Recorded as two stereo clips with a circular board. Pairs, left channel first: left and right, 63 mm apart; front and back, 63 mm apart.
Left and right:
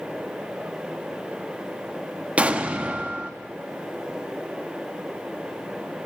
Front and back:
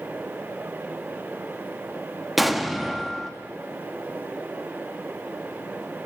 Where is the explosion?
95° right, 0.6 m.